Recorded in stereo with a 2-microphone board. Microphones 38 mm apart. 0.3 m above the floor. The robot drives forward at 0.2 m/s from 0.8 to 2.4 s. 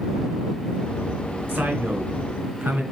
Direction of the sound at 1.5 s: 65° right (ahead or behind).